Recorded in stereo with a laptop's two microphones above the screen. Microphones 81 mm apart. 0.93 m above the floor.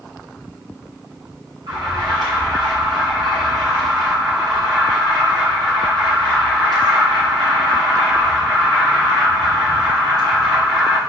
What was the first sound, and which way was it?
An alarm, 60° right (ahead or behind).